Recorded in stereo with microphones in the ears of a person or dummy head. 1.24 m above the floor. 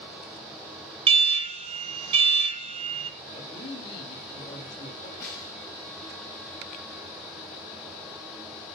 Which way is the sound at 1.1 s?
30° right (ahead or behind).